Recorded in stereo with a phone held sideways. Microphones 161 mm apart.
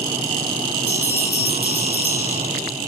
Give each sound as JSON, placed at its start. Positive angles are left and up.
{"t": 0.9, "sound": "a bell", "side_deg": 75, "distance_m": 6.0}